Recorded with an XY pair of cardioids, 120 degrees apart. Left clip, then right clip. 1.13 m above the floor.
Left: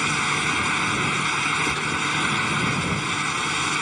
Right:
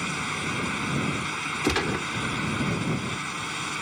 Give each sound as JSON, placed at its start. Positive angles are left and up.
{"t": 0.0, "sound": "a fan", "azimuth_deg": 45}
{"t": 1.6, "sound": "a gunshot", "azimuth_deg": -45}